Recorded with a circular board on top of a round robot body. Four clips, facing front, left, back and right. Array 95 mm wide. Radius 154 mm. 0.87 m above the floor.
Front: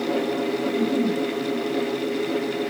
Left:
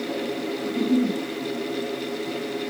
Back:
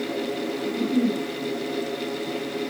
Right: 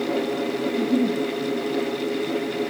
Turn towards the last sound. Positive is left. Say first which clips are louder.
# even, back 1 dB
turn(degrees=80)